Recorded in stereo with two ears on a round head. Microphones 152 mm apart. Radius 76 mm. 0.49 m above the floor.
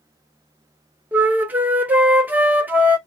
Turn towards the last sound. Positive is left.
turn(degrees=-10)  # may be behind; listen again after turning